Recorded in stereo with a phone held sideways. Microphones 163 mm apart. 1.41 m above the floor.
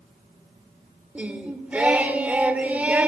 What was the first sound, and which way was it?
Singing, 10° right (ahead or behind).